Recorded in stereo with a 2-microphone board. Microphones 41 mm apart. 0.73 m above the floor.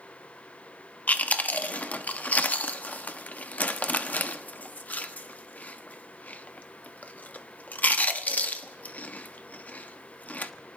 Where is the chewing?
40° left (ahead or behind), 0.6 m.